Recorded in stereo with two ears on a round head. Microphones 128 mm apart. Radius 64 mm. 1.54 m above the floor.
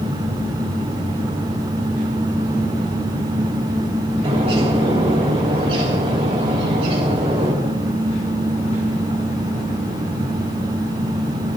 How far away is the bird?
About 3 m.